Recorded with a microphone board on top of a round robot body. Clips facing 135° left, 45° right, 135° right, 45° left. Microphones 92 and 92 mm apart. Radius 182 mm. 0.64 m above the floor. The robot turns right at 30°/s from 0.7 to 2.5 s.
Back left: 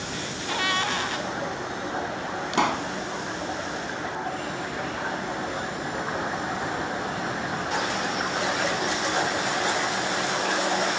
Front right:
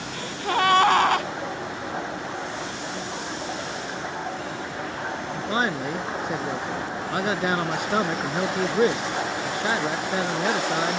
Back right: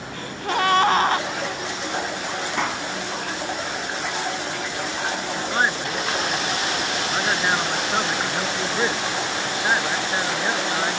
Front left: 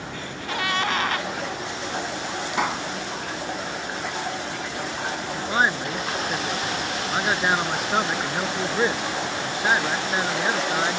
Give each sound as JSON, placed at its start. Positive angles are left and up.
{"t": 0.1, "sound": "a gasp", "azimuth_deg": -90}
{"t": 2.5, "sound": "a pop", "azimuth_deg": 130}
{"t": 5.3, "sound": "a man speaking", "azimuth_deg": -35}